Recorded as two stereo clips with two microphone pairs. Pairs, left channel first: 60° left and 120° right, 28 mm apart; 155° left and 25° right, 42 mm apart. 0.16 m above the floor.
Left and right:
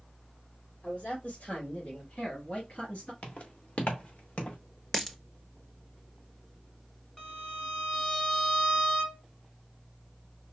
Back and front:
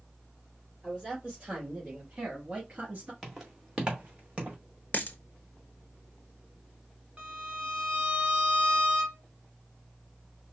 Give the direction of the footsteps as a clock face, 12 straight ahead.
10 o'clock.